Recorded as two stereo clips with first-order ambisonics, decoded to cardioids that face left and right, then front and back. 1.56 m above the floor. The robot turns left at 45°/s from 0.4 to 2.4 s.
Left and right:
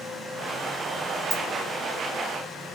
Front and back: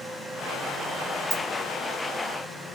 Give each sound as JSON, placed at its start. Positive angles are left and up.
{"t": 1.3, "sound": "a dropped coin", "azimuth_deg": -145, "distance_m": 0.8}